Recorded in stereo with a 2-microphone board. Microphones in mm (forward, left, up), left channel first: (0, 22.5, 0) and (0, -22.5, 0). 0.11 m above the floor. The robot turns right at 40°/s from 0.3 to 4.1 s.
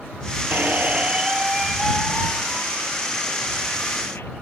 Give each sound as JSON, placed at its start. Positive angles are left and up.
{"t": 0.5, "sound": "a squeak", "azimuth_deg": -50}